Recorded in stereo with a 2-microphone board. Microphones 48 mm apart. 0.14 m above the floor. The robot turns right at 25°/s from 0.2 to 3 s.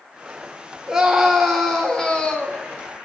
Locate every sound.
0.9 s a scream: 15° right, 3 m; by 2.6 s 30° left, 3 m